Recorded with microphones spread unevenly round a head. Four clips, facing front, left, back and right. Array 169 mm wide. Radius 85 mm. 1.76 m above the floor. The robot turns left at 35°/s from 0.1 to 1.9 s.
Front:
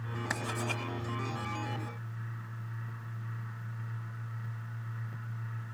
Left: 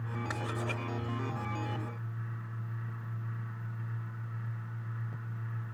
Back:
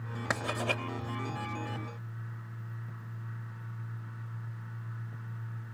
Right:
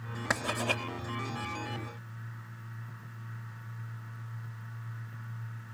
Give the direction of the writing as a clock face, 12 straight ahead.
5 o'clock.